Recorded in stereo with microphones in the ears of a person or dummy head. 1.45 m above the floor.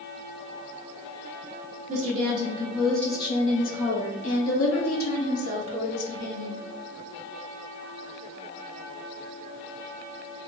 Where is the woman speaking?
40° right (ahead or behind), 0.9 m; by 6.6 s 85° left, 2.0 m.